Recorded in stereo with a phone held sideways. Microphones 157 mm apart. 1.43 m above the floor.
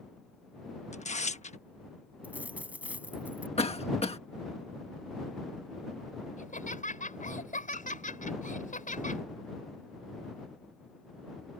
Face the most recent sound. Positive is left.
turn(degrees=55)  # may be behind; listen again after turning